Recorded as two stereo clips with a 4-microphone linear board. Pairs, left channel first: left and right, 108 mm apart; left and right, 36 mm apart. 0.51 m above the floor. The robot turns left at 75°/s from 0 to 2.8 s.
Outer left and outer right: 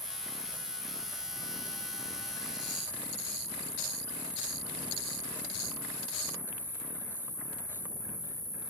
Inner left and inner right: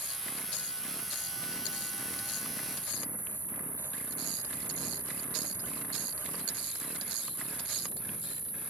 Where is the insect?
100° right, 1.4 m; by 8.7 s 50° left, 1.4 m.